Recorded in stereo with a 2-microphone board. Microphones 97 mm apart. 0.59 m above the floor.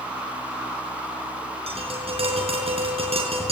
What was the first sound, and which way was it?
Tapping, 85° right.